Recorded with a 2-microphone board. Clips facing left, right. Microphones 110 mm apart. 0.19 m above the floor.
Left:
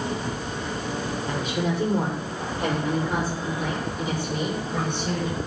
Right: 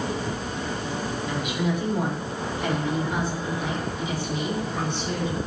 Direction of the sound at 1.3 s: 35° left (ahead or behind).